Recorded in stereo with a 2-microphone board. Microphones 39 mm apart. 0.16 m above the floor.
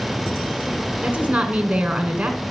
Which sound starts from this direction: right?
A woman speaking, at 1.0 s.